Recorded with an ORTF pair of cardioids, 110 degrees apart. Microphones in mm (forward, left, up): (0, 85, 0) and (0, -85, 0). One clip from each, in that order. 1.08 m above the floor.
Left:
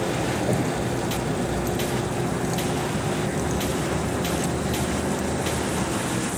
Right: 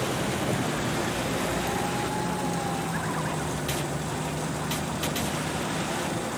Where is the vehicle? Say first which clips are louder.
Left 3 dB; 30° left; by 6.4 s 65° left.